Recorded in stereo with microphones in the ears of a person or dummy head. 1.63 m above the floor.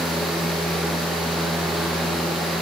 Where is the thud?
No thud in this recording.